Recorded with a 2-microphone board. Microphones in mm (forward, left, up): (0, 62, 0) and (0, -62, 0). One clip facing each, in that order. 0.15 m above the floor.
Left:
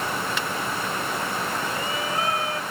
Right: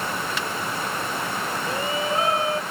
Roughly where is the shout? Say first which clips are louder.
Right 3 dB; right.